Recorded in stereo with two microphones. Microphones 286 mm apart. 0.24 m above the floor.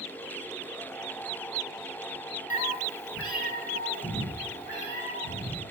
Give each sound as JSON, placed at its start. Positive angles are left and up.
{"t": 2.5, "sound": "a cat meowing", "side_deg": 70, "distance_m": 0.6}